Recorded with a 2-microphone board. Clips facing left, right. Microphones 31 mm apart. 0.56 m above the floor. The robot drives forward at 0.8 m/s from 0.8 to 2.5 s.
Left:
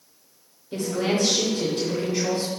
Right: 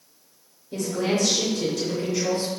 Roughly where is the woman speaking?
Left.